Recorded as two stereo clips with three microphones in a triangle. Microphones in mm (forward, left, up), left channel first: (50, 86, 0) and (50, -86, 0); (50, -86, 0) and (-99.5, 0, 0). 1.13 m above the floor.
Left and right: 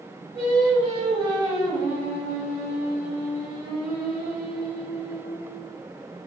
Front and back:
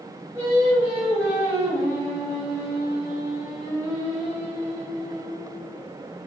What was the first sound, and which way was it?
Singing, 140° right.